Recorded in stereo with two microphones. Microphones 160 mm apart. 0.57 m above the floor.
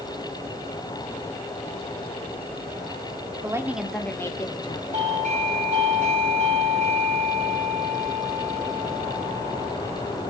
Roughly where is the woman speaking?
Right.